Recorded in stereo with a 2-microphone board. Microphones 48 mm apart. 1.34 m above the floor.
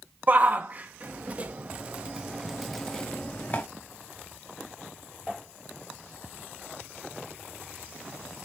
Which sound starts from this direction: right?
A shout, at 0.3 s.